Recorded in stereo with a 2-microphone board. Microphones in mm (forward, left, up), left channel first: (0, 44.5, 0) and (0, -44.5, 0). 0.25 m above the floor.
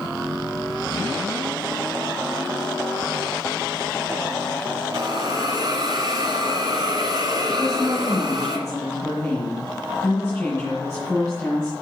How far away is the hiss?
About 1.5 m.